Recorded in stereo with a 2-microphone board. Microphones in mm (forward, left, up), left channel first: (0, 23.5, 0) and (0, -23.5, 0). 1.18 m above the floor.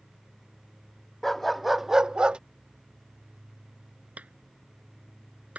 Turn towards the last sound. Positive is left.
turn(degrees=-30)  # may be behind; listen again after turning